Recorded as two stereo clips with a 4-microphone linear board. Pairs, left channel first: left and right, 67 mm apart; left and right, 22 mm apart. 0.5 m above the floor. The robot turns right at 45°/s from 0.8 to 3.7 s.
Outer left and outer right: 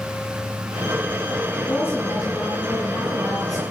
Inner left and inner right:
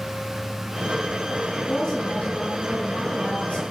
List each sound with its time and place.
1.7 s a woman speaking: 30° left, 6.5 m; by 3.7 s 120° left, 6.5 m